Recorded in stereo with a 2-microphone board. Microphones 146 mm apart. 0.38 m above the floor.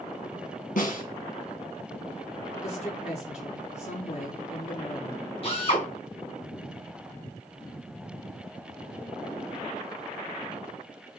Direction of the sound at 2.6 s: 50° left (ahead or behind).